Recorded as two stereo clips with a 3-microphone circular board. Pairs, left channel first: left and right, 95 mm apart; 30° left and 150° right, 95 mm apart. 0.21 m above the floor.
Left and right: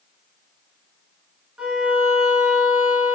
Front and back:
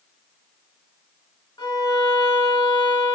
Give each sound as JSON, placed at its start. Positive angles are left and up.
{"t": 1.6, "sound": "a violin", "azimuth_deg": -5, "distance_m": 0.7}